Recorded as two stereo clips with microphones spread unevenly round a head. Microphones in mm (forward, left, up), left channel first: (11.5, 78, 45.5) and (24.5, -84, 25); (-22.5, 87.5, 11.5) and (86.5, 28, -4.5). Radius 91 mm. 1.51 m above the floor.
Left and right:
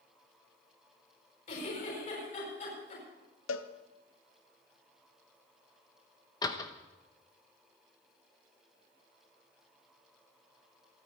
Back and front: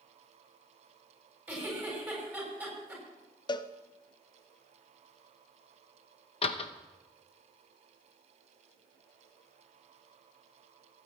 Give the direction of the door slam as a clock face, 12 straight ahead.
7 o'clock.